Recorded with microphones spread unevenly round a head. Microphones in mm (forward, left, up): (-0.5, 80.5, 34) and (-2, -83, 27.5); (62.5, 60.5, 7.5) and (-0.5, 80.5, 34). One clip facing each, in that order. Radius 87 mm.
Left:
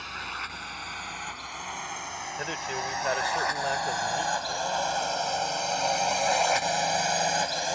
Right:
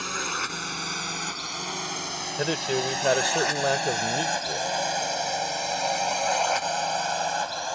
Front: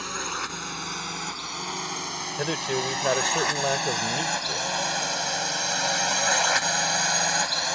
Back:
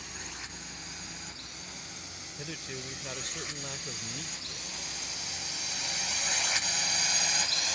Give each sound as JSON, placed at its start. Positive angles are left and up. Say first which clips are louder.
{"t": 0.0, "sound": "a drone", "louder": "right 7 dB, front 13 dB", "azimuth_deg": -55}
{"t": 2.4, "sound": "a man speaking", "louder": "right 9 dB, front 14 dB", "azimuth_deg": -50}